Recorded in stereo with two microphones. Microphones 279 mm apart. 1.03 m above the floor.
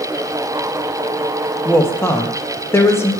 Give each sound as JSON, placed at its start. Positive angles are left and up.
{"t": 1.6, "sound": "a woman speaking", "side_deg": 10, "distance_m": 0.8}